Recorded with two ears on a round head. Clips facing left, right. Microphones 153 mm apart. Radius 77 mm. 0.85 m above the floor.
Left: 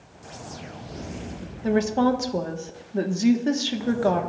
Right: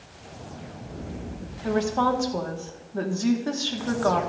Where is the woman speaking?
25° left (ahead or behind), 1.3 m.